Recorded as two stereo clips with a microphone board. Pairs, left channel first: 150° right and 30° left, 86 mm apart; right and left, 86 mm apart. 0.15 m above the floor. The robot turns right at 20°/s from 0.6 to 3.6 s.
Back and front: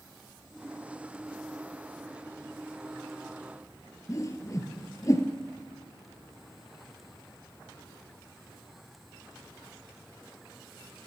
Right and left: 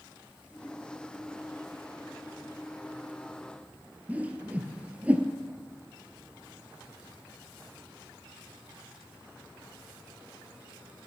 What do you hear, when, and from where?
4.1 s a whoosh: 160° left, 1.1 m